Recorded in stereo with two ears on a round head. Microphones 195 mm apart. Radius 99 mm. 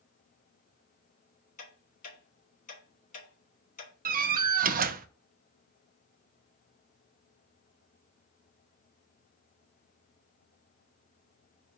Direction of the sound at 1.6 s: 40° left (ahead or behind).